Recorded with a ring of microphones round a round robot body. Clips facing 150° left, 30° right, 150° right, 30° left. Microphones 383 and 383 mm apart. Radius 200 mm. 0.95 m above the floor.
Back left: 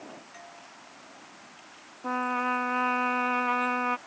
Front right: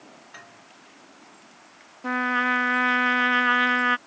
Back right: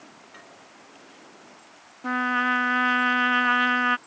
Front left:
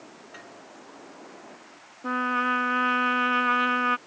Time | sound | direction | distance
0.3 | a doorbell | 50° right | ?
2.0 | a trumpet | 75° right | ?